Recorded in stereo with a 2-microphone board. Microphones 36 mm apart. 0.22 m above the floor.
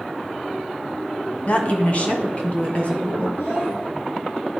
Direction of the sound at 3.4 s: 75° left (ahead or behind).